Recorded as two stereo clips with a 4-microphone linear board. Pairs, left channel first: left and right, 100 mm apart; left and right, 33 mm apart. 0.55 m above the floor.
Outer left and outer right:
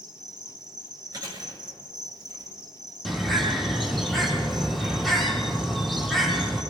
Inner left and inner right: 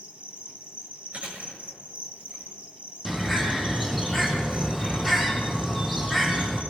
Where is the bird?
Centre (ahead or behind), 3 m.